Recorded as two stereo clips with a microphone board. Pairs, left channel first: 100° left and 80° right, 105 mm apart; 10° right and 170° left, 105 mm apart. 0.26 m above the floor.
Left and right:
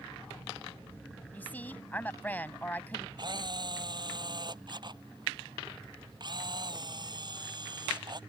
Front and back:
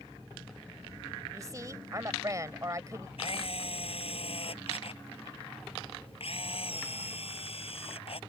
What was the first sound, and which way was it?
A woman speaking, 155° left.